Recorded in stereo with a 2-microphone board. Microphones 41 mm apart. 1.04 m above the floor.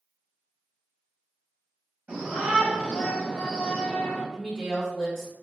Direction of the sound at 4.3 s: 5° left (ahead or behind).